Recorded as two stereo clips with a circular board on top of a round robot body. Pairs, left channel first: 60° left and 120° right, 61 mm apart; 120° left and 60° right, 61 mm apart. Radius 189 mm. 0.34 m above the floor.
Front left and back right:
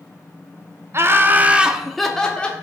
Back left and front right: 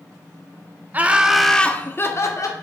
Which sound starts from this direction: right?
Laughter, at 0.9 s.